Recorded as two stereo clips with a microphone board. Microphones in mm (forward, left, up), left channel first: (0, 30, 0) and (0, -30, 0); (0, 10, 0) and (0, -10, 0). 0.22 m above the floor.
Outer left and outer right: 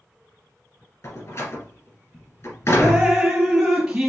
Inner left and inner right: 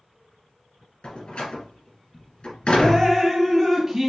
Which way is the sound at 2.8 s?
10° right (ahead or behind).